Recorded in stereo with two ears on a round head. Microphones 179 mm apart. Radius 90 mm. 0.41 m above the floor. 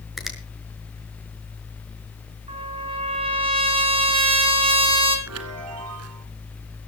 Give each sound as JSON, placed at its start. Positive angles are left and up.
{"t": 0.2, "sound": "a finger snap", "side_deg": 0, "distance_m": 5.0}
{"t": 2.5, "sound": "a trumpet", "side_deg": -25, "distance_m": 4.0}
{"t": 5.3, "sound": "a chime", "side_deg": -85, "distance_m": 2.0}